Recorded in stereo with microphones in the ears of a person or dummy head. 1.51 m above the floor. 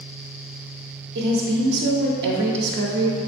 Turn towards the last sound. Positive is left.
turn(degrees=-55)  # may be behind; listen again after turning